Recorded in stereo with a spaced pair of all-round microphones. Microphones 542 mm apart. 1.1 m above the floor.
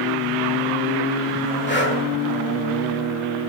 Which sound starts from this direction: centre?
Breathing, at 1.7 s.